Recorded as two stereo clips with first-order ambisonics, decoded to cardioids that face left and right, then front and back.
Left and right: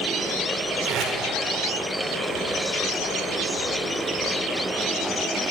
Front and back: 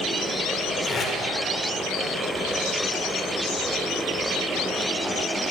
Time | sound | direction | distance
0.8 | tape being pulled | 60° right | 0.9 m